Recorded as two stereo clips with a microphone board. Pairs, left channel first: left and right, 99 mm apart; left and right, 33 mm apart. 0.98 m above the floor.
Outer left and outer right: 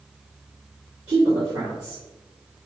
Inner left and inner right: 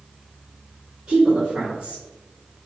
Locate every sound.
1.1 s a woman speaking: 70° right (ahead or behind), 2.0 m